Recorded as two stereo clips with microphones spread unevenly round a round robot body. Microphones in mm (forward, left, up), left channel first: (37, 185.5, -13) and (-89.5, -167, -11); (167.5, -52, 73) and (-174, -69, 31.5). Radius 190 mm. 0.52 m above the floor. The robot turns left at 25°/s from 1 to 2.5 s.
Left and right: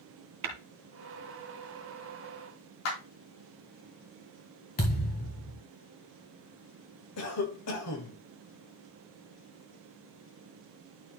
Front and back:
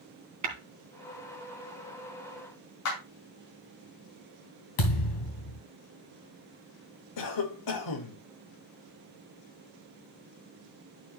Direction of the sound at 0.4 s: 140° right.